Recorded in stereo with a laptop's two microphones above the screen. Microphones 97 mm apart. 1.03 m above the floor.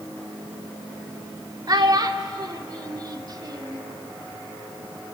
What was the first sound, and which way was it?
A child speaking, 45° right (ahead or behind).